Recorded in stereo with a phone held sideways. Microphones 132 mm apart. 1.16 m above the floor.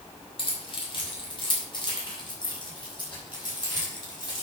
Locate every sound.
0.4 s keys jangling: 45° left (ahead or behind), 3 m; by 4.4 s 30° left (ahead or behind), 5.5 m